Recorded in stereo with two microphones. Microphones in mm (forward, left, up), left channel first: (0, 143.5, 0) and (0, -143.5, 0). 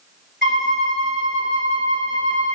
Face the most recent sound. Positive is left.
turn(degrees=-40)  # may be behind; listen again after turning